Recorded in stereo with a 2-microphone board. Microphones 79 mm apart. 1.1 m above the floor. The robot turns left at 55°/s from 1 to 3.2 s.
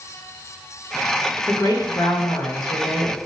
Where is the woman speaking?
135° left, 1.2 m; by 3.2 s 45° left, 1.2 m.